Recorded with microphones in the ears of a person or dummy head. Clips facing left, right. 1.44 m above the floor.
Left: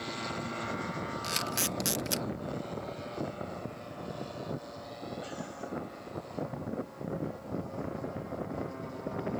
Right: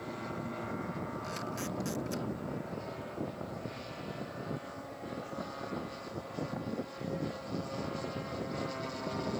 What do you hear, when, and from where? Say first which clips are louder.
1.2 s a camera shutter: left 2 dB; 75° left (ahead or behind)